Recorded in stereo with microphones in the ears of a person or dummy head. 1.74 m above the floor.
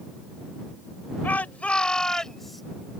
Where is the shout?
5° left (ahead or behind); by 2.6 s centre (ahead or behind).